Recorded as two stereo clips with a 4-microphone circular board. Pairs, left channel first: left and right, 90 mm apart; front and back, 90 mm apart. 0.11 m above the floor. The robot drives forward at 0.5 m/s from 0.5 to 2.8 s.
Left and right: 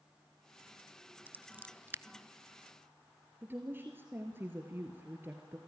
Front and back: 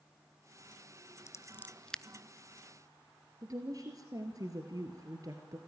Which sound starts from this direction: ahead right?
Scissors, at 1.3 s.